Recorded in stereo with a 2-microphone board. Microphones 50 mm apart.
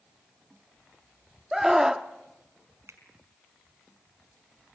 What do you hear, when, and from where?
1.5 s a scream: 10° right (ahead or behind), 0.7 m
2.9 s a finger snap: 80° right, 4 m